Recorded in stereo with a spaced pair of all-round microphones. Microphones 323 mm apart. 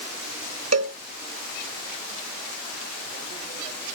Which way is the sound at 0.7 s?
50° right (ahead or behind).